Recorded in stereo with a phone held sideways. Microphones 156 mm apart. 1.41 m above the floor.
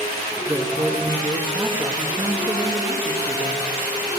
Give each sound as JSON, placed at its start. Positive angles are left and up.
{"t": 0.5, "sound": "a man speaking", "side_deg": -20, "distance_m": 1.7}